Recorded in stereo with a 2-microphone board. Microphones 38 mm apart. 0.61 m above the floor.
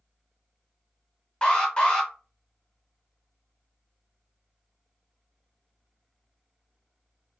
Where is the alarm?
20° left (ahead or behind), 0.9 m.